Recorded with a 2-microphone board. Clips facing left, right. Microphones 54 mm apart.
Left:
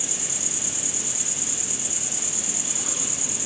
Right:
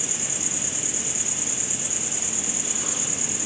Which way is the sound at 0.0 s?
30° right (ahead or behind).